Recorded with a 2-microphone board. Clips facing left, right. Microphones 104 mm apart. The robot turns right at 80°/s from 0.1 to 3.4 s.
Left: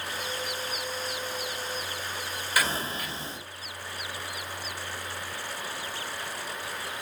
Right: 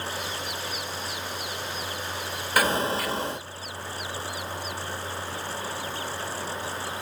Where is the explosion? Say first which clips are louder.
Right 6 dB; 130° right, 1.8 m; by 3.4 s 60° right, 1.8 m.